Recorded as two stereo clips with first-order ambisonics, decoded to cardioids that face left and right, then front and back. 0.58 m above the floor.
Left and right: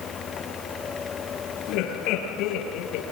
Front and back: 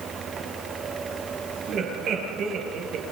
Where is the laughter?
125° left, 9 m.